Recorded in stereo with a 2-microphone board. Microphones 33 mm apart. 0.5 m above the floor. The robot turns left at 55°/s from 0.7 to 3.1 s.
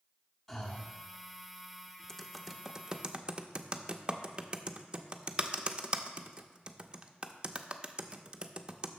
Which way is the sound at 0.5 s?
5° left (ahead or behind).